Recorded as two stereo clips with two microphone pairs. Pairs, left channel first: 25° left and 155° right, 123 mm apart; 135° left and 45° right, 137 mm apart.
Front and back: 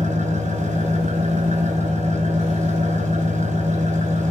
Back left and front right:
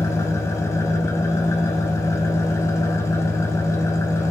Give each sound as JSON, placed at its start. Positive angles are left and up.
{"t": 0.0, "sound": "an engine running", "azimuth_deg": -155, "distance_m": 1.1}